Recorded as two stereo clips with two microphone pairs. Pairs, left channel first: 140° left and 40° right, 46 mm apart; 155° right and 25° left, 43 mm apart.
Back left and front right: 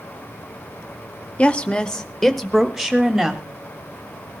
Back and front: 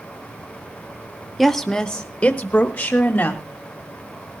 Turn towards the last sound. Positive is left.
turn(degrees=-120)